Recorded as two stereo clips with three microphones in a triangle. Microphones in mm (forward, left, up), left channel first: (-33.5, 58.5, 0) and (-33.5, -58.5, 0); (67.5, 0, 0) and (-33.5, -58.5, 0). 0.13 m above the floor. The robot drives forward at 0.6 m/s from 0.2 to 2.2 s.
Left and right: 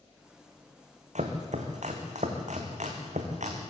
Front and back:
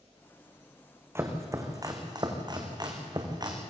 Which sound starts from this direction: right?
Chopping, at 1.1 s.